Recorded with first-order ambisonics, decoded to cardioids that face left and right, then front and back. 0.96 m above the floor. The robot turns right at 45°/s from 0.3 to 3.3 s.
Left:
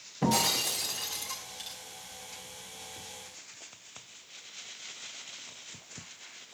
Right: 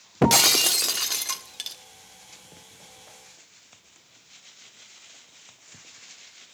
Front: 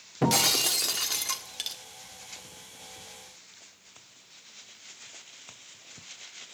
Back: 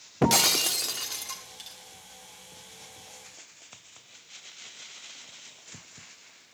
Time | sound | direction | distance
0.2 | breaking glass | 105° right | 0.8 m